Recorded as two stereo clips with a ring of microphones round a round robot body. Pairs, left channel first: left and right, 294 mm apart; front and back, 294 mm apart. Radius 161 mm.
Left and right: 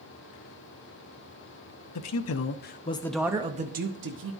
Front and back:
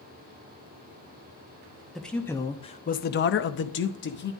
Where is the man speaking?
90° left, 0.8 m; by 4.3 s 50° right, 1.0 m.